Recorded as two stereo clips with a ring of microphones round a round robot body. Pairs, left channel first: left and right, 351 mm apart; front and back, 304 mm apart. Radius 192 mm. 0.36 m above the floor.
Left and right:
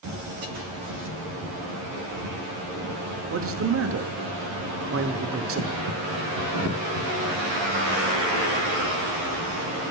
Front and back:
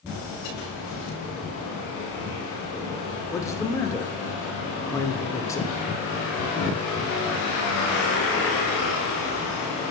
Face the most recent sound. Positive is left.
turn(degrees=-75)